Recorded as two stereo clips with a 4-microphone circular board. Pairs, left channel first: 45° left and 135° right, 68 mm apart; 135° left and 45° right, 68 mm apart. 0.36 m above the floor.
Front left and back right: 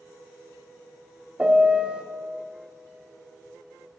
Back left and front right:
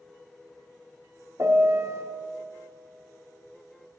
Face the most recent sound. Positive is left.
turn(degrees=-70)